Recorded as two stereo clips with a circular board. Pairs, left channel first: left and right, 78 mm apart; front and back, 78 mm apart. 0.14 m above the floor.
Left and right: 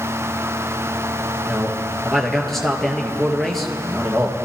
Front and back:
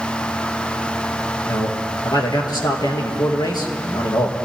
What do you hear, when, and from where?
1.5 s a man speaking: 5° left, 2.5 m